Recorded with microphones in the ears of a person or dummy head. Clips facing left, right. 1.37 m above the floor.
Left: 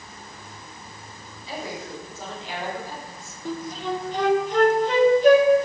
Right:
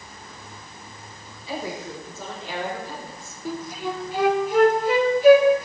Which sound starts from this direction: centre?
A flute, at 3.5 s.